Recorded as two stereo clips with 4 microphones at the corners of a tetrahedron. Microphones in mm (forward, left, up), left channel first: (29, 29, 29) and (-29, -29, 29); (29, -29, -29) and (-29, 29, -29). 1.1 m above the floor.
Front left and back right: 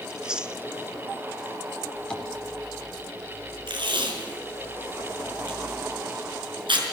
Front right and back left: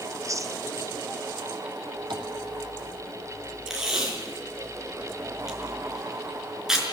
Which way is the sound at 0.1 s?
150° left.